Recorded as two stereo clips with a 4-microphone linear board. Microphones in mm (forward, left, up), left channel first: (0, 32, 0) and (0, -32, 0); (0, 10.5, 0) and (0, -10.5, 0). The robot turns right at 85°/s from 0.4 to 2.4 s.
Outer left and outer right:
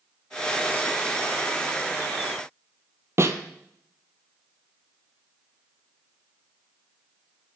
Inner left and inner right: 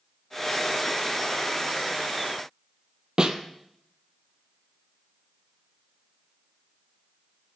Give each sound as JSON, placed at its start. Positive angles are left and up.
{"t": 3.2, "sound": "a snare drum", "side_deg": -45, "distance_m": 1.3}